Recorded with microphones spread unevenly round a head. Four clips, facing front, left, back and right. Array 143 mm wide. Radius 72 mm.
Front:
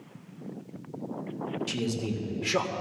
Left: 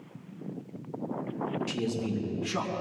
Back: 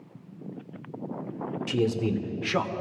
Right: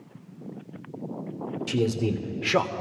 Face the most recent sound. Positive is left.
turn(degrees=-75)